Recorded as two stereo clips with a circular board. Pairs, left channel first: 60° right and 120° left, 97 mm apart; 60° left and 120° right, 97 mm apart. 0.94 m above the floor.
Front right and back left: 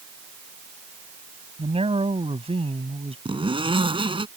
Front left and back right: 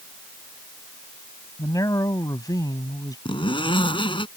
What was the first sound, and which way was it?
A man speaking, 115° left.